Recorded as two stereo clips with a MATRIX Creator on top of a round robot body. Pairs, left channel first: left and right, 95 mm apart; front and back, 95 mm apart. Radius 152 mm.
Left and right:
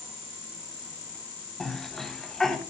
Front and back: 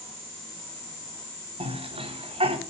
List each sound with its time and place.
1.6 s a cough: 175° left, 3.5 m